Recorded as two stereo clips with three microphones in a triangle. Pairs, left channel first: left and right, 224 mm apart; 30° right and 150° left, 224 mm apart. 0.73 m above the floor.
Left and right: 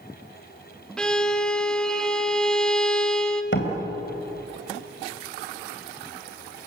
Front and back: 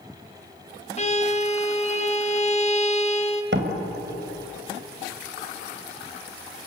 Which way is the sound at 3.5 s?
120° left.